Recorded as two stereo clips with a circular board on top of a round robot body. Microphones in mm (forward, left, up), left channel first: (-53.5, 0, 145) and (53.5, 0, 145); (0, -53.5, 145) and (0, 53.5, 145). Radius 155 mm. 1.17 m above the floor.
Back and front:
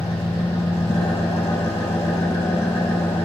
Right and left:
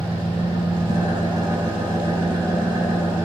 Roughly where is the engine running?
Behind left.